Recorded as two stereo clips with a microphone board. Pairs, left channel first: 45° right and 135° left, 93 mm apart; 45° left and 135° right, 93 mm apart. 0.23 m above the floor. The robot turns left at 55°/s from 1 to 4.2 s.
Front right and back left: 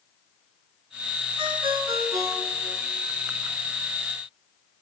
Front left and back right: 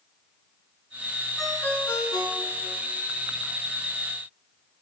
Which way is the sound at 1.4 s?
135° left.